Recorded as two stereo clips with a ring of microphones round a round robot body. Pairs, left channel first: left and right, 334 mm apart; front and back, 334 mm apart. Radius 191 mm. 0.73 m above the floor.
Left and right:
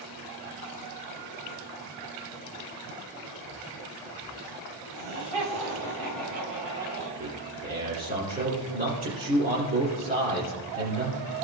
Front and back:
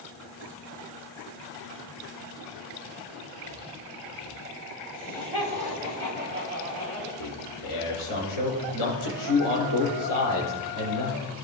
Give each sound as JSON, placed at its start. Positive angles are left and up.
{"t": 4.9, "sound": "laughter", "azimuth_deg": -95, "distance_m": 4.5}
{"t": 7.2, "sound": "a man speaking", "azimuth_deg": -25, "distance_m": 3.0}